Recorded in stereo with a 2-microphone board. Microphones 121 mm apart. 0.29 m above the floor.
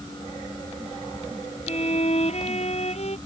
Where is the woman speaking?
No woman speaking in this recording.